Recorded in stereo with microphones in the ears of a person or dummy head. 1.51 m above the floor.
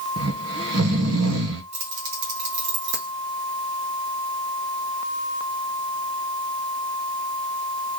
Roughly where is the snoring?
Right.